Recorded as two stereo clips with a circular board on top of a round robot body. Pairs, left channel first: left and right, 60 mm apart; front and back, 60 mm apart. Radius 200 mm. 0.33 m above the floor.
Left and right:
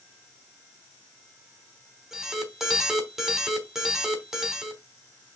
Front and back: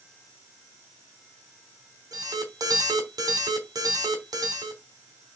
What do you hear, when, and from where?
2.1 s an alarm: 175° right, 3.5 m